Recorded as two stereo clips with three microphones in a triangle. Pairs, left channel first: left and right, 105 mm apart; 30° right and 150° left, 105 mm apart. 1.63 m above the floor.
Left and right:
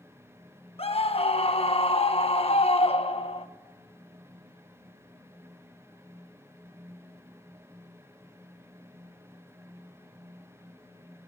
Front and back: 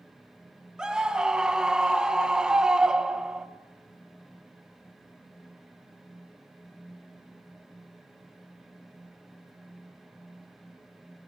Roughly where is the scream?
Left.